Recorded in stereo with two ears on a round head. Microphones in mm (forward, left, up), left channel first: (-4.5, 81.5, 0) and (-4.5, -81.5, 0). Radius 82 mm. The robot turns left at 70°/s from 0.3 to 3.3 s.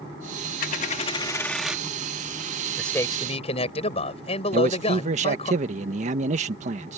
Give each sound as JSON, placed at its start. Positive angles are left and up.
{"t": 0.6, "sound": "a dropped coin", "azimuth_deg": 75}
{"t": 2.8, "sound": "a man speaking", "azimuth_deg": 180}
{"t": 4.5, "sound": "a man speaking", "side_deg": -45}